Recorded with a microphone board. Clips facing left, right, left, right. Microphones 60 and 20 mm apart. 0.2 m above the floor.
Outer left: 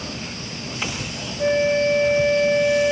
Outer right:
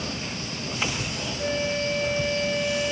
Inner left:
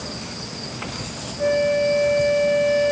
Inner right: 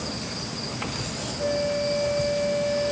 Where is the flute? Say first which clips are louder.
Outer left 9 dB, inner left 7 dB; 35° left (ahead or behind).